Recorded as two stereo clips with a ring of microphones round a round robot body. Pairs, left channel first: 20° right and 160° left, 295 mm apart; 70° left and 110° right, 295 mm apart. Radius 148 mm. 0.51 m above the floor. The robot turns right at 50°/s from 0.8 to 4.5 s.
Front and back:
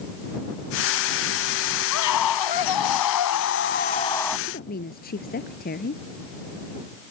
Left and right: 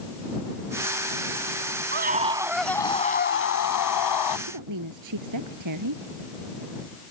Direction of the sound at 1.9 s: 55° right.